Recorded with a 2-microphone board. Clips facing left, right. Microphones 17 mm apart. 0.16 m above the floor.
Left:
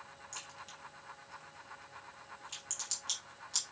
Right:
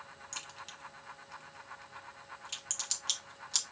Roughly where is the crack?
Right.